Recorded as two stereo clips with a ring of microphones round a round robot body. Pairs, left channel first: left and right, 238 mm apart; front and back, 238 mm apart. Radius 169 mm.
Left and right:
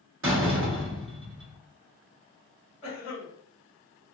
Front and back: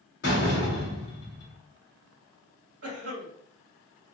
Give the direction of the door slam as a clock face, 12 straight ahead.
2 o'clock.